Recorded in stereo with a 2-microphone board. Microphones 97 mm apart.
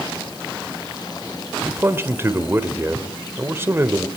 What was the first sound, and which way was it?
A man speaking, 25° right (ahead or behind).